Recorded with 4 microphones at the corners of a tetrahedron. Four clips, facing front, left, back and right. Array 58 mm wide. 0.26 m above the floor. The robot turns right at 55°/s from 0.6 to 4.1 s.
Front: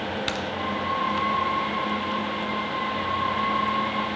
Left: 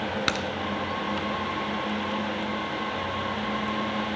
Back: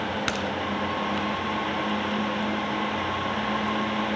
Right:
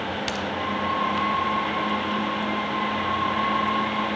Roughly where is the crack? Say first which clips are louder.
Left 1 dB, back 1 dB; left.